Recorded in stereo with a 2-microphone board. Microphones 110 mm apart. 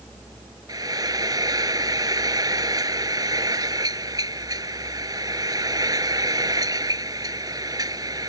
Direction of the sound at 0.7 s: 35° right (ahead or behind).